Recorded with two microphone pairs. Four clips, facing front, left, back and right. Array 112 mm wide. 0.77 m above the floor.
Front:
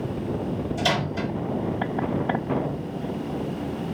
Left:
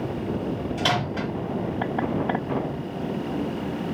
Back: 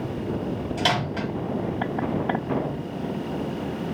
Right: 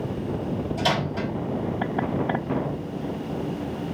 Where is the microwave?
165° left, 1.8 m.